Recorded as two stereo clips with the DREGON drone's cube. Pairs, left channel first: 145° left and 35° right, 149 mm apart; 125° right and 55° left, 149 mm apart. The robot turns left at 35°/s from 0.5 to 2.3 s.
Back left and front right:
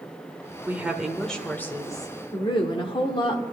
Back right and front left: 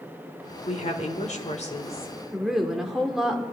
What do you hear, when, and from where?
0.7 s a woman speaking: 105° right, 1.5 m; by 2.1 s 160° right, 1.5 m
2.3 s a woman speaking: 140° left, 1.3 m